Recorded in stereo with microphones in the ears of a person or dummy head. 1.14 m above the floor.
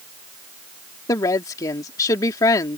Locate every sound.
1.1 s a woman speaking: 20° left (ahead or behind)